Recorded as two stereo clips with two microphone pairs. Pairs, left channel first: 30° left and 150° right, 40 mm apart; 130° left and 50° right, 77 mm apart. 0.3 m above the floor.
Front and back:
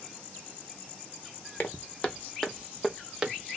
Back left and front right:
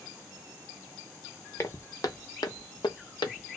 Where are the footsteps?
80° left, 1.0 m; by 3.6 s 145° left, 1.1 m.